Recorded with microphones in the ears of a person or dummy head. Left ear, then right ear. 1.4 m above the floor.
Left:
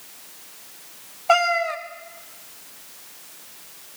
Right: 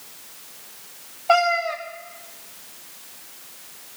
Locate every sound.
1.3 s a cat meowing: 15° left (ahead or behind), 0.7 m